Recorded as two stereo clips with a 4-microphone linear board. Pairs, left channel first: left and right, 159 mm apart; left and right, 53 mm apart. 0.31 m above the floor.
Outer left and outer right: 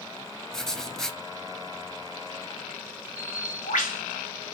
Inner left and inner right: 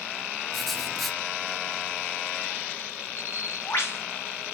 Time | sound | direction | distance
0.5 | writing | 5° left (ahead or behind) | 0.6 m
3.2 | a bird | 55° left (ahead or behind) | 1.7 m